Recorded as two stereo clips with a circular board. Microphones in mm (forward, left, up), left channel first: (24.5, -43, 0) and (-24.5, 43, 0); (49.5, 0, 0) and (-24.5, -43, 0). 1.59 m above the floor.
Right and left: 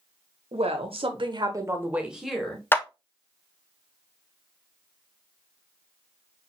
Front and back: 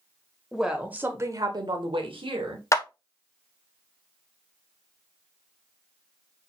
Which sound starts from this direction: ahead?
A clap, at 2.7 s.